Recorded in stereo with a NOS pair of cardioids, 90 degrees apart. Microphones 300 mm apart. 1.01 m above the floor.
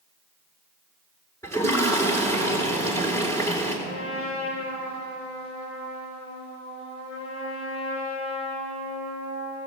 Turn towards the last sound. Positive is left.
turn(degrees=70)